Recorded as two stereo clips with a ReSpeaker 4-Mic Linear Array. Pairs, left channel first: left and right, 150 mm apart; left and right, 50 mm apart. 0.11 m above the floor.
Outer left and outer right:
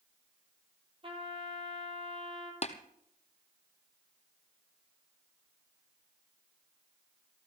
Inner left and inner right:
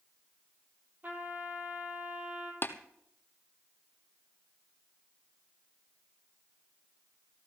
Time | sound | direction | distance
1.0 | a trumpet | 40° right (ahead or behind) | 3 m
2.6 | tapping | 45° left (ahead or behind) | 1.1 m